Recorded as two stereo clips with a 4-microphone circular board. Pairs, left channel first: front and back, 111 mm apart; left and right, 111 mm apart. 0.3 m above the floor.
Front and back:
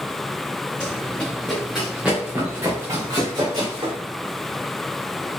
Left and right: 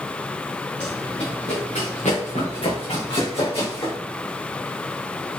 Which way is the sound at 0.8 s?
70° left.